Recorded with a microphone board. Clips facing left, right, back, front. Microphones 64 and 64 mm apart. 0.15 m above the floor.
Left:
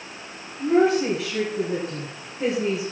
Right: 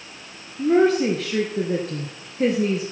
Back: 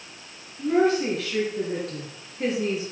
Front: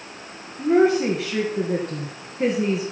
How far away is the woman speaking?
About 3 m.